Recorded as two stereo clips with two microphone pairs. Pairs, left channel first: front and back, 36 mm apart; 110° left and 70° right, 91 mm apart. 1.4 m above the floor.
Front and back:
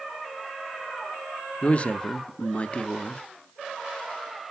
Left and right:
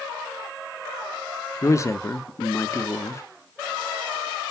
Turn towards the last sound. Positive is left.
turn(degrees=55)